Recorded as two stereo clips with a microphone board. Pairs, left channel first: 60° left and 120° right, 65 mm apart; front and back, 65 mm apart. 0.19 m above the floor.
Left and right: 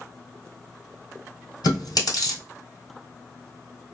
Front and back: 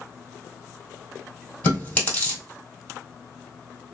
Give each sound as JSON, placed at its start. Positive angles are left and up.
{"t": 1.6, "sound": "chewing", "azimuth_deg": 65, "distance_m": 1.8}